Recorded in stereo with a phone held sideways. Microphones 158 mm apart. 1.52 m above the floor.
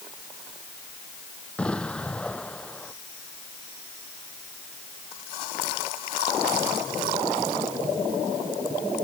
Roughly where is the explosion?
Centre.